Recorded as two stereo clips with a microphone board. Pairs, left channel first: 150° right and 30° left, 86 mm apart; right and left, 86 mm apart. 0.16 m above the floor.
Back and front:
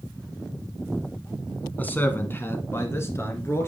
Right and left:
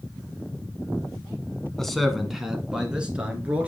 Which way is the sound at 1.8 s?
170° right.